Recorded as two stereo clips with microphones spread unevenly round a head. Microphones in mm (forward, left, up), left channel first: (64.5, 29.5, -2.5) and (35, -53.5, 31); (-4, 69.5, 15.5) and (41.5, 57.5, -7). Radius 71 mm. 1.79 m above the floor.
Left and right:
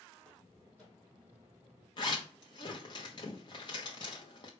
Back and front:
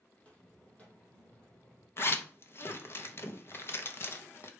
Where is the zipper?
130° left, 1.1 m.